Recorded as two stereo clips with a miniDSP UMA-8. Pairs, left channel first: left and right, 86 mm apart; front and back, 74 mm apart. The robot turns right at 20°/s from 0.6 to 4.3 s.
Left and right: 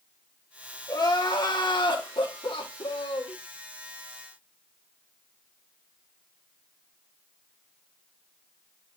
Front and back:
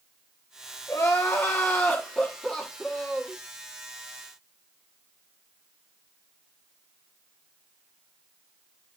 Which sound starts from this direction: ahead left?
Crying, at 0.9 s.